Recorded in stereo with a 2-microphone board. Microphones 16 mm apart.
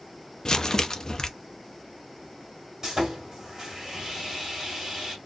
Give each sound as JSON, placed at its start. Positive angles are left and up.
{"t": 0.5, "sound": "crumpling", "side_deg": 45, "distance_m": 0.7}
{"t": 2.8, "sound": "sawing", "side_deg": -40, "distance_m": 1.7}